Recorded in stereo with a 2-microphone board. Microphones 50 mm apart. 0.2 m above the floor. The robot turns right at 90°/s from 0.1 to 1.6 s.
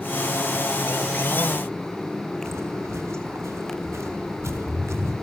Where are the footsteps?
65° right (ahead or behind), 3 m.